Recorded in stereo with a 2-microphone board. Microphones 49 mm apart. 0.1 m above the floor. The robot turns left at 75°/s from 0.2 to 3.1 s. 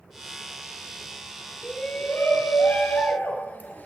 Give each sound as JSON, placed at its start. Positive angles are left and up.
{"t": 1.6, "sound": "a shout", "azimuth_deg": 160, "distance_m": 2.5}